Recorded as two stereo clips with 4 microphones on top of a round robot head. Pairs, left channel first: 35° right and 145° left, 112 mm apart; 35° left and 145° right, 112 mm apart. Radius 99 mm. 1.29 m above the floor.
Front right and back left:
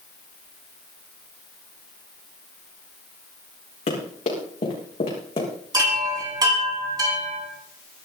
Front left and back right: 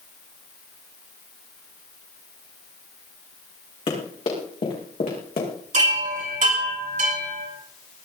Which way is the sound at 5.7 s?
160° right.